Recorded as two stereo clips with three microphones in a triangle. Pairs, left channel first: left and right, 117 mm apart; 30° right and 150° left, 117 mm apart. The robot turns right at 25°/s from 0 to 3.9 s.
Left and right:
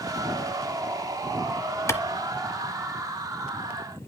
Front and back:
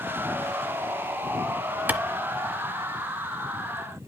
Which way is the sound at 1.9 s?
100° left.